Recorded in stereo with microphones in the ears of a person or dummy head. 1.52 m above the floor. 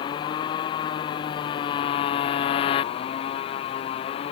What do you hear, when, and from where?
0.0 s a motorcycle: 25° left (ahead or behind); by 4.3 s 30° left (ahead or behind)